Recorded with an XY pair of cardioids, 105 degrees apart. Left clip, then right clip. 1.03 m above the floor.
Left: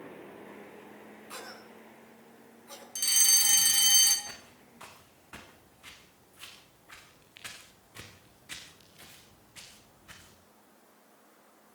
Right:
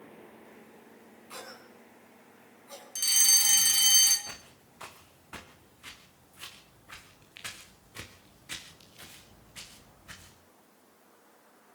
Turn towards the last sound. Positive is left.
turn(degrees=-20)